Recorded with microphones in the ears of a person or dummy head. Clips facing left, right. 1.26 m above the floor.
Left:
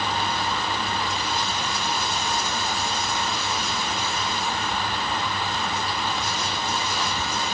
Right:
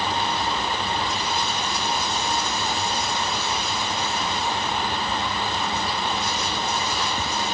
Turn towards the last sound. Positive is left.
No sound to turn to.